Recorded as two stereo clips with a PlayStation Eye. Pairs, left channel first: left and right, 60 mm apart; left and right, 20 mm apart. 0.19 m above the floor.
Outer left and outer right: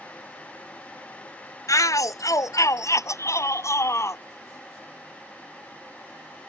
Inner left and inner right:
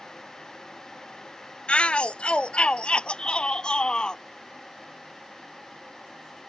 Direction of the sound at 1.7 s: 70° left (ahead or behind).